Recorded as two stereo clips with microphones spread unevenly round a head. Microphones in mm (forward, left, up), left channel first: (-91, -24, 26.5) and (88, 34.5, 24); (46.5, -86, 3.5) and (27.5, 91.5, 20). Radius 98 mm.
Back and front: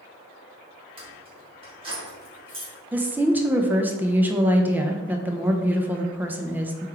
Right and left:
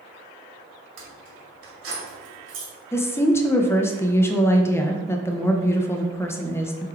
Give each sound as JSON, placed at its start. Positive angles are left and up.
{"t": 1.0, "sound": "keys jangling", "azimuth_deg": 80, "distance_m": 1.7}
{"t": 2.9, "sound": "a woman speaking", "azimuth_deg": -50, "distance_m": 0.5}